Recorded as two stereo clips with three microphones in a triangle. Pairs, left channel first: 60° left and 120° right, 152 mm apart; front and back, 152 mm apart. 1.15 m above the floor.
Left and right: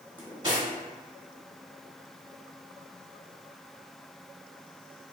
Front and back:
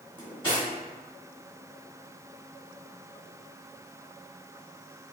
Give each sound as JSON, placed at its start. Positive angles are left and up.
{"t": 0.2, "sound": "cutlery clinking", "azimuth_deg": -55, "distance_m": 1.7}